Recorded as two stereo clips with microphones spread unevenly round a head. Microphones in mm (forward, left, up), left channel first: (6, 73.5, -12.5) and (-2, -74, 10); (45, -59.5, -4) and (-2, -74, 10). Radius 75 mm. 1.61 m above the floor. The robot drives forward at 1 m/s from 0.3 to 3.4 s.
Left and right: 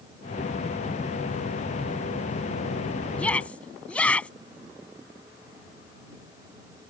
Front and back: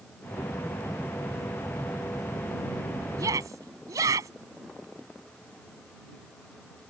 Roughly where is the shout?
Behind.